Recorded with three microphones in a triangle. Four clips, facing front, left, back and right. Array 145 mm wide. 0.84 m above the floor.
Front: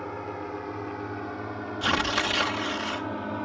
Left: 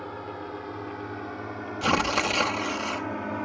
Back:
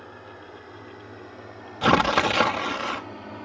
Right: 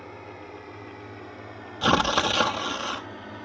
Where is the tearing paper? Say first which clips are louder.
Right 3 dB, back 8 dB; 165° right.